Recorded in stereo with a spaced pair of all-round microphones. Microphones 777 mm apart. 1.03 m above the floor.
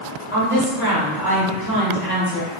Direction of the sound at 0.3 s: 15° left (ahead or behind).